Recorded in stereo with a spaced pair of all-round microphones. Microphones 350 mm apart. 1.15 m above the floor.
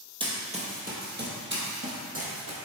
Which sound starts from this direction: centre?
Running footsteps, at 0.2 s.